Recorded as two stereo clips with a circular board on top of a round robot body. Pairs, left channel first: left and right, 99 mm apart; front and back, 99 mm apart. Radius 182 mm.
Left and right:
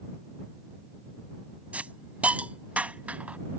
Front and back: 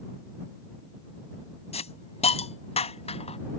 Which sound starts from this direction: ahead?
A hiss, at 1.7 s.